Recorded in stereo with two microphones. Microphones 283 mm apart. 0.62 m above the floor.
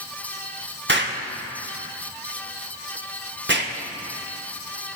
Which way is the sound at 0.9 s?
45° right (ahead or behind).